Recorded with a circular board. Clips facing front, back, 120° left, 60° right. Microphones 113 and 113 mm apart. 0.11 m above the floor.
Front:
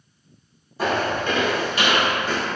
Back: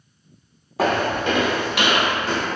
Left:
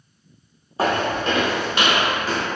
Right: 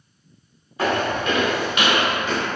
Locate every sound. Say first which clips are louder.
0.8 s footsteps: back 2 dB, left 1 dB; straight behind, 0.7 m; by 2.5 s 175° left, 2.5 m